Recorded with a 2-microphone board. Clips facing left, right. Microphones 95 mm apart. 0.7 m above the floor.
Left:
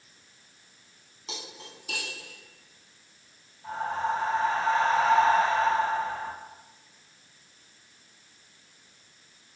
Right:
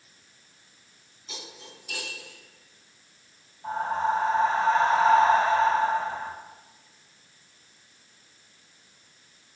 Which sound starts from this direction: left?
Cutlery clinking, at 1.3 s.